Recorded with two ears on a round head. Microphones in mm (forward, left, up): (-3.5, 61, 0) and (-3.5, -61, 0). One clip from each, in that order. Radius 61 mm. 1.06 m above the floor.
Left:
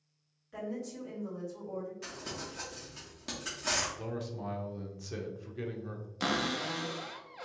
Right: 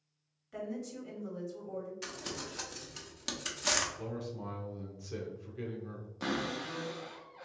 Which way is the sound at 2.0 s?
60° right (ahead or behind).